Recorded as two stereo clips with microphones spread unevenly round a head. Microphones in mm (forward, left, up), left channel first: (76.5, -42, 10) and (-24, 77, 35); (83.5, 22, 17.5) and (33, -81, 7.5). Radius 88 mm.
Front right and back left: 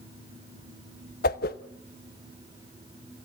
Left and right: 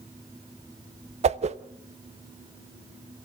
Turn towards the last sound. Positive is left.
turn(degrees=-90)